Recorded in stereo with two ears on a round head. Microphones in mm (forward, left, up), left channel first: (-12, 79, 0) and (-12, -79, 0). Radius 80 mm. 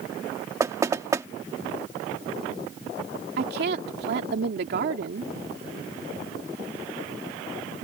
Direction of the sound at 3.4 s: 65° right (ahead or behind).